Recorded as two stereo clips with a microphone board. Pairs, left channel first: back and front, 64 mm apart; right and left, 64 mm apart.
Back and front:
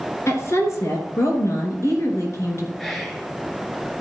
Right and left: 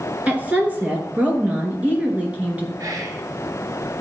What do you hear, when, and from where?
0.3 s a woman speaking: 155° left, 2.5 m
2.8 s whispering: 95° left, 2 m